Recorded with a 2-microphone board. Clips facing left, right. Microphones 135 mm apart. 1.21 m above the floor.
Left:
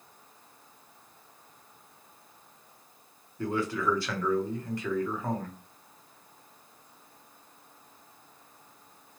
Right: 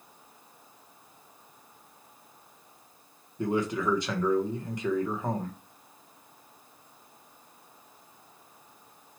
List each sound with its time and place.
3.4 s a man speaking: 20° right (ahead or behind), 0.8 m